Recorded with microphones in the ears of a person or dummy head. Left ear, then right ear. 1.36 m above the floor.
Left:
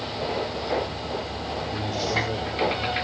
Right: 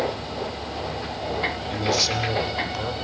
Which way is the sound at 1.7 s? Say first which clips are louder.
Right 4 dB; 40° right (ahead or behind).